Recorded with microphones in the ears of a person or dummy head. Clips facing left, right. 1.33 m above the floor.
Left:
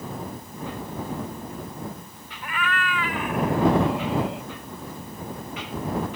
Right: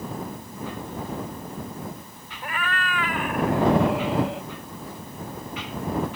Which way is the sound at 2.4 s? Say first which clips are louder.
Left 1 dB; 35° right (ahead or behind).